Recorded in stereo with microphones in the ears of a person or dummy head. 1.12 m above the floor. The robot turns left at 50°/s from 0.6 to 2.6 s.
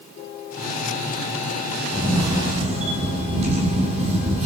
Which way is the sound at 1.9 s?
Straight ahead.